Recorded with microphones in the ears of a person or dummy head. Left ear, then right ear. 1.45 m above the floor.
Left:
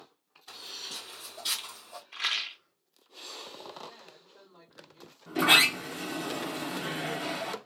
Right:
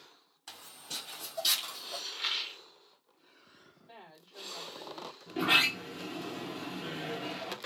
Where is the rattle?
30° left (ahead or behind), 0.6 m.